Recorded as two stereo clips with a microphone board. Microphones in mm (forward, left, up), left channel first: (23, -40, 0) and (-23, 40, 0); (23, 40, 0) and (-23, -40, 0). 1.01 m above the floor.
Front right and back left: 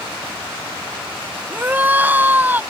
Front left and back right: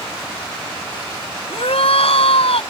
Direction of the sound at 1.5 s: 50° left.